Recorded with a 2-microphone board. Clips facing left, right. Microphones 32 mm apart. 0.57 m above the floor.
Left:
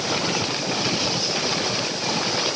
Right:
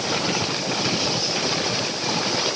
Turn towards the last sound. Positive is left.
No sound to turn to.